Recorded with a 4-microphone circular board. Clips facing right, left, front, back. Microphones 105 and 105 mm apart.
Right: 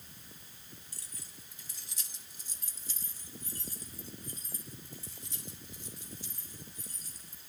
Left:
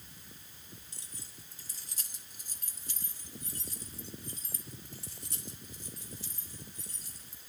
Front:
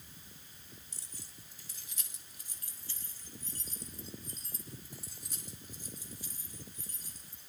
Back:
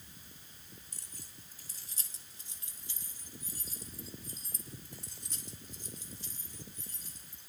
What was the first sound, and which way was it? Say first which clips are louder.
Keys jangling: left 1 dB, even; 155° left.